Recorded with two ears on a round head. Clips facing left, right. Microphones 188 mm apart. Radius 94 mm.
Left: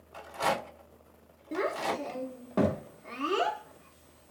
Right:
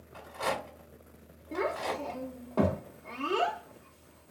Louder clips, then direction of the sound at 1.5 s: Left 1 dB; 20° left (ahead or behind).